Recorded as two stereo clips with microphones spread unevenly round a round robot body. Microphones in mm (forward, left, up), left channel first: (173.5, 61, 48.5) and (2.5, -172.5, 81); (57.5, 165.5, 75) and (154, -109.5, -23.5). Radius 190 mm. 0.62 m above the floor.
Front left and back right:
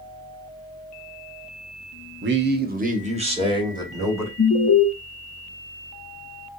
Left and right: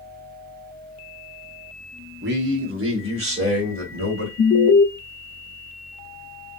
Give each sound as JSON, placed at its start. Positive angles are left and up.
{"t": 2.2, "sound": "a man speaking", "azimuth_deg": -80, "distance_m": 0.8}
{"t": 4.4, "sound": "an alarm", "azimuth_deg": 55, "distance_m": 0.6}